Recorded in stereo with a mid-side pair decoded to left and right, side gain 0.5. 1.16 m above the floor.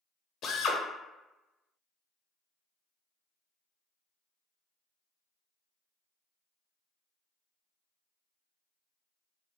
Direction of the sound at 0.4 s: 65° left.